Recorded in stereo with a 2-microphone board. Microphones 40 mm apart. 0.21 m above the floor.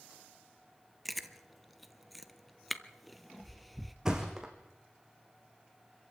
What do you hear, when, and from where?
1.1 s chewing: centre (ahead or behind), 0.8 m
4.0 s a thud: 10° right (ahead or behind), 3 m